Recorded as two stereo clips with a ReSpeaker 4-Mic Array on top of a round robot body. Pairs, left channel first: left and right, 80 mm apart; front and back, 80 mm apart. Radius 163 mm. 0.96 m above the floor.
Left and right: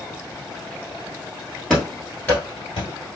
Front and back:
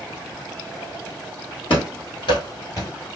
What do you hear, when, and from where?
1.7 s running footsteps: 5° right, 1.5 m; by 2.9 s 65° left, 1.2 m